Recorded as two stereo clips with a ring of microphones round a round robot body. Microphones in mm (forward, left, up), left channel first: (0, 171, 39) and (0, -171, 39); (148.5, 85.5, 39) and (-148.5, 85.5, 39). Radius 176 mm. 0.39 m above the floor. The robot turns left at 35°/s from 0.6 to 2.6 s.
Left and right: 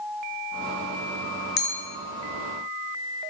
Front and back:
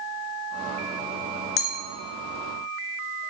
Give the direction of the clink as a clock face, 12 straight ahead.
11 o'clock.